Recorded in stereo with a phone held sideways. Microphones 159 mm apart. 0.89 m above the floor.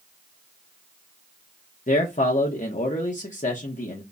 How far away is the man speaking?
About 0.7 m.